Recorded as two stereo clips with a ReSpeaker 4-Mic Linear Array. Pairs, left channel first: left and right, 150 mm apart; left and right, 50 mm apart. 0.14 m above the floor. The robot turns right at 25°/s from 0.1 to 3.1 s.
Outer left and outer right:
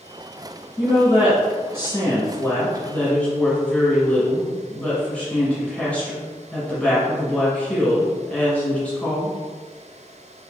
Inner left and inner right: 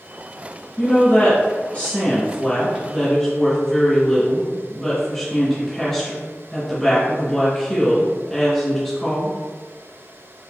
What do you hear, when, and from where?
0.8 s a woman speaking: 25° left (ahead or behind), 1.7 m; by 9.4 s 5° left (ahead or behind), 1.7 m